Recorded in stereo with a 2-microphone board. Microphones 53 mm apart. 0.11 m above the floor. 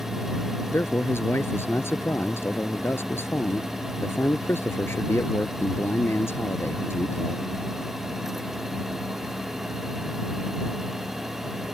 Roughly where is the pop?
I don't hear a pop.